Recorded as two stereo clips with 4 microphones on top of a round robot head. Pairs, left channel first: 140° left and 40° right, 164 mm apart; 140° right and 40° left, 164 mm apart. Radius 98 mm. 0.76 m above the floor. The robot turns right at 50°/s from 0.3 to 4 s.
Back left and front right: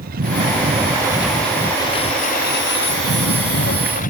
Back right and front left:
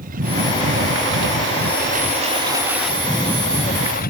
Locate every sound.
0.0 s a lawn mower: 5° right; by 4.1 s straight behind